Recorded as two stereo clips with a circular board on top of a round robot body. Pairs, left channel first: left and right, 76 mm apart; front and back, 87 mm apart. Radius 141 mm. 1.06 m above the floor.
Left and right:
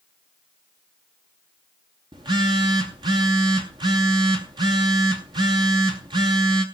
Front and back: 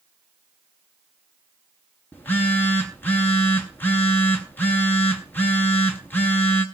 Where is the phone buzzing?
70° right, 0.5 m.